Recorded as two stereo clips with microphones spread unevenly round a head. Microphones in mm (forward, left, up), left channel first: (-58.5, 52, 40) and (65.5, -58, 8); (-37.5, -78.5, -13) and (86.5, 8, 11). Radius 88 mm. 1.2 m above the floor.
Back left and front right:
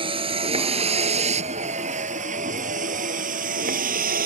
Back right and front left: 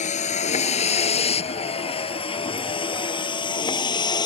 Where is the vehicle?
105° right; by 4.3 s 80° right.